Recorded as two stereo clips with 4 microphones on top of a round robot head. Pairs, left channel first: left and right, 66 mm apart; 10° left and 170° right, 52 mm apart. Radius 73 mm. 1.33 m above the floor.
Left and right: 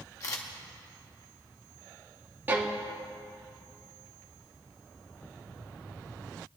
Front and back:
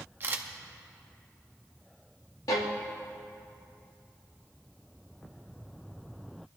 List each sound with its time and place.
0.2 s a camera shutter: 140° left, 1.0 m
2.5 s a violin: 30° right, 0.7 m